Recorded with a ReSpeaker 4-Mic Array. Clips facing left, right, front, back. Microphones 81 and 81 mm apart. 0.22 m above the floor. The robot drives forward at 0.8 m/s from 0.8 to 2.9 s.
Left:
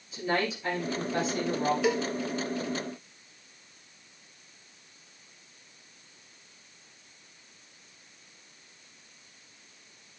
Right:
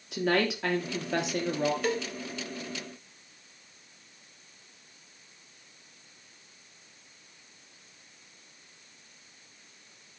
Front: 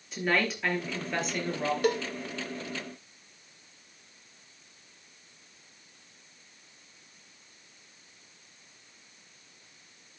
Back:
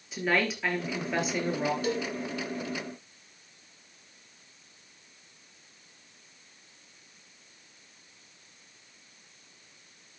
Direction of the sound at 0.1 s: 90° right.